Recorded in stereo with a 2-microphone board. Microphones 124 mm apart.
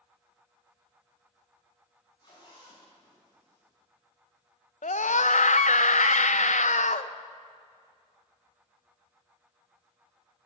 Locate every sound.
2.2 s a zipper: 35° left (ahead or behind), 7 m
4.8 s a scream: 75° left (ahead or behind), 0.7 m